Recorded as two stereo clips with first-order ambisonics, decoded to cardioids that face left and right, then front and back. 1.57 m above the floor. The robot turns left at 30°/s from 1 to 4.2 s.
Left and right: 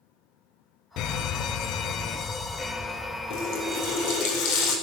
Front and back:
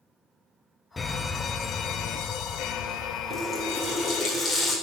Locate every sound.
1.0 s a fire alarm: 75° left, 1.1 m; by 4.3 s 20° right, 1.1 m
3.3 s a running tap: 110° left, 4 m; by 4.7 s 85° left, 4 m